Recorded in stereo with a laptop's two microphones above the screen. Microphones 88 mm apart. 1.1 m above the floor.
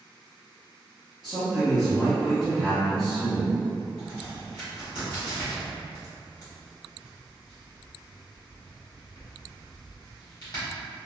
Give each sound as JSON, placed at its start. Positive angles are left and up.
{"t": 1.2, "sound": "a man speaking", "side_deg": -5, "distance_m": 0.8}
{"t": 4.0, "sound": "a crack", "side_deg": 45, "distance_m": 1.4}